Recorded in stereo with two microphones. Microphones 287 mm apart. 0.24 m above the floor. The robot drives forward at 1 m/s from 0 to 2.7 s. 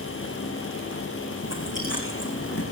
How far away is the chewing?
About 9 m.